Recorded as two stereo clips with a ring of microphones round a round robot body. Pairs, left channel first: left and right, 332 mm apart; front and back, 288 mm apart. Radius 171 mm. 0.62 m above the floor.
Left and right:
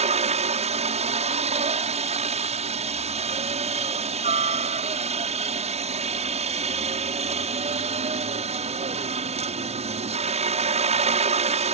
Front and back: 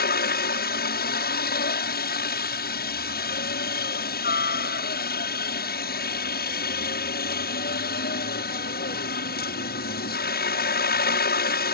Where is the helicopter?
30° right.